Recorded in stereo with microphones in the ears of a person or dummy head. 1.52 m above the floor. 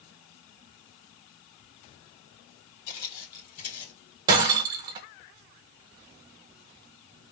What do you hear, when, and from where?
2.9 s footsteps: 45° left (ahead or behind), 3 m
4.3 s breaking glass: 25° right (ahead or behind), 0.6 m